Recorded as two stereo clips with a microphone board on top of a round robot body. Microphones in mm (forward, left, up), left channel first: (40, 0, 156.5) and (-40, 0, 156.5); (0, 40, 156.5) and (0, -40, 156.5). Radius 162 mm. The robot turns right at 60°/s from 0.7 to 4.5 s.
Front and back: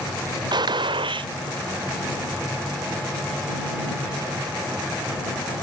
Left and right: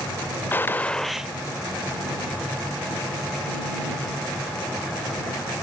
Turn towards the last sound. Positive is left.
turn(degrees=25)